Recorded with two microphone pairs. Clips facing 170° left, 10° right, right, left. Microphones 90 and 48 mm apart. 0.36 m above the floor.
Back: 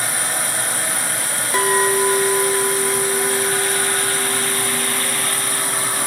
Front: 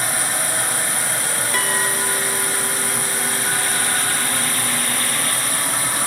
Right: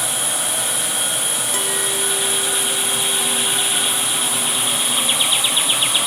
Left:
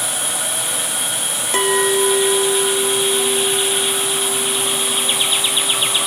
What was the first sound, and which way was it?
A clink, 115° left.